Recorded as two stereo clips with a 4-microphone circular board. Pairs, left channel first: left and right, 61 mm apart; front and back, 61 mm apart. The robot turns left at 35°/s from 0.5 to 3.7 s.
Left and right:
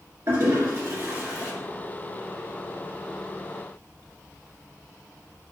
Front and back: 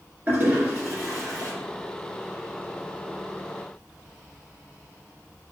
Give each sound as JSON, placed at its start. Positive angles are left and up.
{"t": 0.3, "sound": "a toilet flushing", "azimuth_deg": -120, "distance_m": 1.8}